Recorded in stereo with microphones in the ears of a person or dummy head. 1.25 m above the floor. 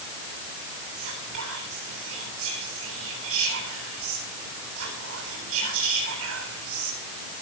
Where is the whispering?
80° right, 7.5 m.